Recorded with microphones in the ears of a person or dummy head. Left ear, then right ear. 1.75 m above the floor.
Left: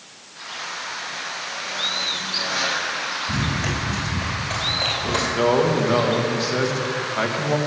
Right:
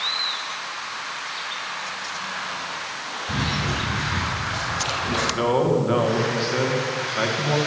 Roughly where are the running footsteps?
Left.